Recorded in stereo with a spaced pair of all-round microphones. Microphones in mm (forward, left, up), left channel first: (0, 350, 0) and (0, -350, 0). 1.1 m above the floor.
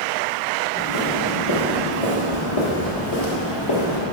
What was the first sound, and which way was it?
Footsteps, 35° left (ahead or behind).